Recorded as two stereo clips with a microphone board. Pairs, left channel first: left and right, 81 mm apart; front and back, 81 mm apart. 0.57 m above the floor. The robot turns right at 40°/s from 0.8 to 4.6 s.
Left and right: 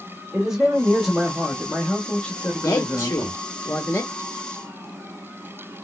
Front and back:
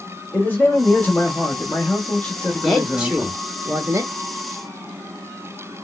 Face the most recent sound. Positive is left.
turn(degrees=170)